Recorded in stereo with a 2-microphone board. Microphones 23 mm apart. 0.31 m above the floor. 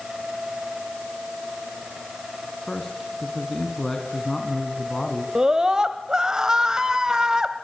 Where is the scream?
30° right (ahead or behind), 1.9 m.